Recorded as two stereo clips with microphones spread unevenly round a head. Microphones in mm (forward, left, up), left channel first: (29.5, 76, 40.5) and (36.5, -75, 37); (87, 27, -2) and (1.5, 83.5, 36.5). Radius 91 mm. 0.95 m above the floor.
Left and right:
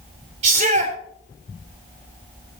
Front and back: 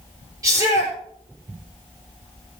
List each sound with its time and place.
0.4 s a shout: 140° right, 3.5 m